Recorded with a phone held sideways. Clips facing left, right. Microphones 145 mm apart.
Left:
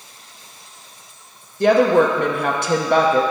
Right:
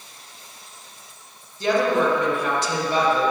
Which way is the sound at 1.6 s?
60° left (ahead or behind).